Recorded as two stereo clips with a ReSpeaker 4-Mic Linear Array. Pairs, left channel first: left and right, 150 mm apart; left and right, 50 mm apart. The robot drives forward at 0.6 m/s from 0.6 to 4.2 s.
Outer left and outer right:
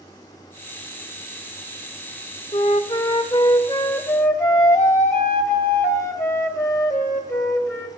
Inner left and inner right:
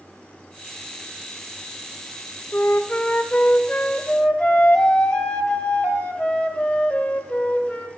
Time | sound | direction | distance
2.5 | a flute | 40° left (ahead or behind) | 0.7 m